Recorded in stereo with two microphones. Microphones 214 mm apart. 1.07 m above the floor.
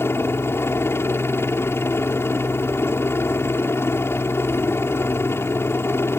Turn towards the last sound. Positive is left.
turn(degrees=10)  # may be behind; listen again after turning